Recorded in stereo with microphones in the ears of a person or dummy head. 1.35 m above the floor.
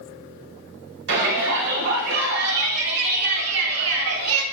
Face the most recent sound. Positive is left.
turn(degrees=-85)